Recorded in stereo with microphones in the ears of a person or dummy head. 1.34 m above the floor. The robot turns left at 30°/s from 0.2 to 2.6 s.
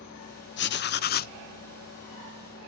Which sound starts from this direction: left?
Writing, at 0.6 s.